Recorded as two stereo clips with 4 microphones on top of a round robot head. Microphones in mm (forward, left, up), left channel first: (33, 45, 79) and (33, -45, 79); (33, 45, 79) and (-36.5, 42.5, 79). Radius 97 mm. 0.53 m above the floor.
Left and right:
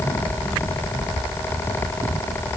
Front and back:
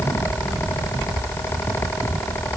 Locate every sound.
Only background noise.